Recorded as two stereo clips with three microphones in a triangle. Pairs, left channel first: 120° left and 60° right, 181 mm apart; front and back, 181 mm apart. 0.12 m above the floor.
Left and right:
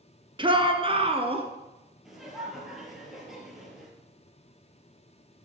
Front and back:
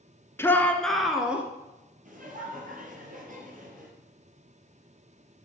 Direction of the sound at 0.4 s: 60° right.